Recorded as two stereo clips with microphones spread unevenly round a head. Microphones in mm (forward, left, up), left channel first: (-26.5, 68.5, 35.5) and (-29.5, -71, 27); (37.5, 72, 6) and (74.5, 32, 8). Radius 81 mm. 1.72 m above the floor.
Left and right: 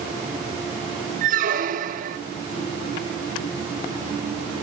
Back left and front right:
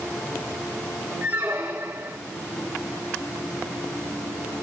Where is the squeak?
115° right, 1.4 m.